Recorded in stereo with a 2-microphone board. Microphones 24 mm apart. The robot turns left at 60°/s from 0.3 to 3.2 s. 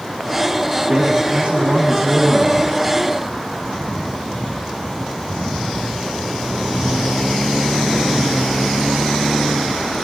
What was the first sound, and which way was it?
A man speaking, 35° right.